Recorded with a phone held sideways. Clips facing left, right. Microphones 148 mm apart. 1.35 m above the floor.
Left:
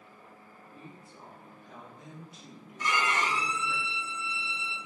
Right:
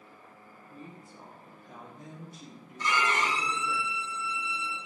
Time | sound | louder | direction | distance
0.6 | a woman speaking | right 3 dB | 45° right (ahead or behind) | 0.8 m
2.8 | a violin | right 1 dB | 10° left (ahead or behind) | 1.6 m